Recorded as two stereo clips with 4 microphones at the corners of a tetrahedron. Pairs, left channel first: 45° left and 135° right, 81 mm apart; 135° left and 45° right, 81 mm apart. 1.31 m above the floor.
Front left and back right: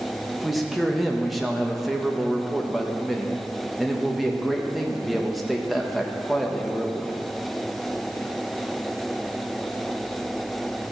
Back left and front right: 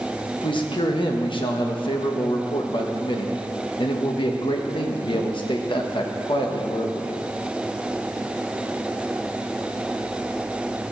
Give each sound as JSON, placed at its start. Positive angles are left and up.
{"t": 0.3, "sound": "a man speaking", "azimuth_deg": 135, "distance_m": 1.2}